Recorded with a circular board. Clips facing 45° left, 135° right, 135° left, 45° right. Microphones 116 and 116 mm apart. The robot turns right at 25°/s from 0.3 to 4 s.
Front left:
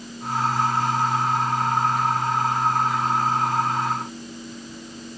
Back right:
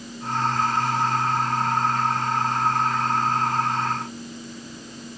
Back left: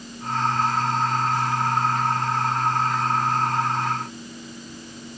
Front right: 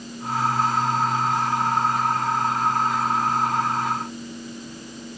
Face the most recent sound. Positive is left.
No sound to turn to.